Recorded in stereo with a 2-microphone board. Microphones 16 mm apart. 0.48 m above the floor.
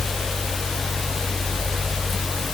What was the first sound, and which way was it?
Only background noise.